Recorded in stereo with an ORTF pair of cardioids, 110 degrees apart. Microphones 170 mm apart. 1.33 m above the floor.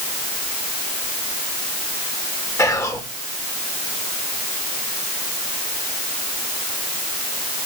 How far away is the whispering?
About 3 m.